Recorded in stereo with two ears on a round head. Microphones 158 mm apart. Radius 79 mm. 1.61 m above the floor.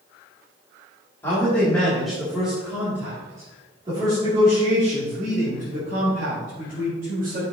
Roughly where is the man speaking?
Centre.